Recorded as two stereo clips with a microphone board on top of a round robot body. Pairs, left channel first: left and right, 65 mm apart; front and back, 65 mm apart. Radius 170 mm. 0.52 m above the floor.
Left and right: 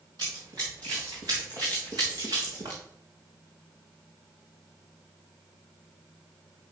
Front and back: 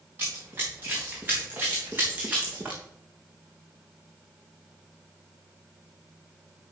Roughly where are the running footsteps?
Behind right.